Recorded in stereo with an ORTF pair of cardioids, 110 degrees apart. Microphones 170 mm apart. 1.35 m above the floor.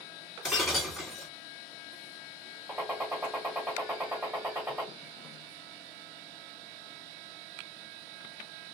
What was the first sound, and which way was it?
Breaking glass, straight ahead.